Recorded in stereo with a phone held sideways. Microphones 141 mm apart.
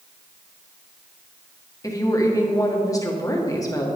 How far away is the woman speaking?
About 1.5 m.